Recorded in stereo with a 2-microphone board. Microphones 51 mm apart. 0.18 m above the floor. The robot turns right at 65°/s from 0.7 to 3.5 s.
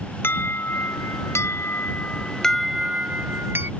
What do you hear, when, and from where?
0.2 s an alarm: 55° left; by 3.7 s 125° right